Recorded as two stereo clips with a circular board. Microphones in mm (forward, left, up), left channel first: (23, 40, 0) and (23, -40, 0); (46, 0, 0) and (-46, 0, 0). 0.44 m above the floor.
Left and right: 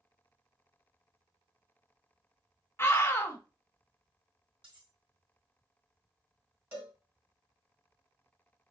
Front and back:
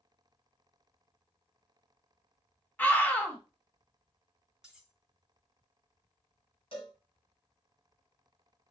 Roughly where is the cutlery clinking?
Right.